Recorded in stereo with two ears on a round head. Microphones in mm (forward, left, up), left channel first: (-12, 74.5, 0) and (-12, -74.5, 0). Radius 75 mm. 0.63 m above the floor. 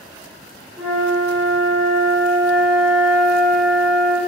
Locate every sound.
0.8 s a flute: centre (ahead or behind), 1.3 m